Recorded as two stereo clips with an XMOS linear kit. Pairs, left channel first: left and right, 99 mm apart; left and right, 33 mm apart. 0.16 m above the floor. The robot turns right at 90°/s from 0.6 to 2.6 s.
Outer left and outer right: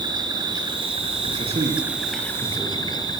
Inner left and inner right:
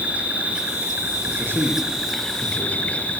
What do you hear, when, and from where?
0.0 s an insect: 135° right, 5.5 m; by 3.2 s 45° left, 5.5 m
1.2 s a man speaking: 75° right (ahead or behind), 8.5 m; by 3.0 s 20° left (ahead or behind), 8.5 m